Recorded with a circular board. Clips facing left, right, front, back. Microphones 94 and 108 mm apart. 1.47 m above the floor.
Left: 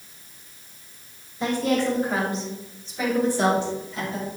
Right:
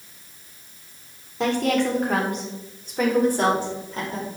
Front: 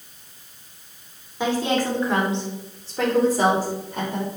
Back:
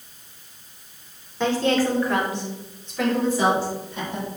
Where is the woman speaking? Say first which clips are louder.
Right 1 dB, back 2 dB; 80° right, 4 m; by 4.3 s 40° right, 5.5 m.